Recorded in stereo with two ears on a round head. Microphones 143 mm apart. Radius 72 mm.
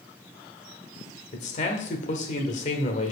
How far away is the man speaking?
About 1.6 m.